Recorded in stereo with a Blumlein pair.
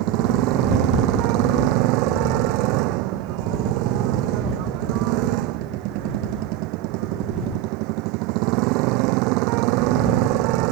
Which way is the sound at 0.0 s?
45° right.